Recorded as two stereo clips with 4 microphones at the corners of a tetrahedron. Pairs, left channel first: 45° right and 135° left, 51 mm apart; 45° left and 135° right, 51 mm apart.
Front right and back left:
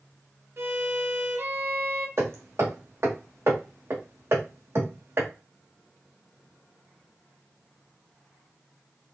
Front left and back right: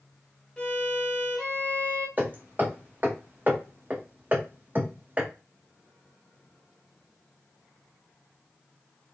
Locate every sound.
0.6 s a violin: 110° left, 0.8 m
2.2 s hammering: 170° left, 1.1 m